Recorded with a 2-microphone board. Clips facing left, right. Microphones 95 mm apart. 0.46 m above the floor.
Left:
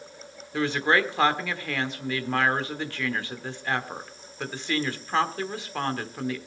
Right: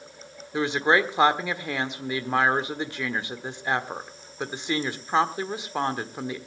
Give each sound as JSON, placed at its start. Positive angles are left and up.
{"t": 0.5, "sound": "a woman speaking", "side_deg": -20, "distance_m": 1.2}